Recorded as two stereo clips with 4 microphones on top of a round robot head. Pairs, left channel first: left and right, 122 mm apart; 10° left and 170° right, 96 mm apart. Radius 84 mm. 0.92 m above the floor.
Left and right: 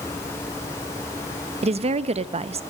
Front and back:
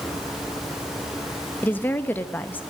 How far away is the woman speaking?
About 1.0 m.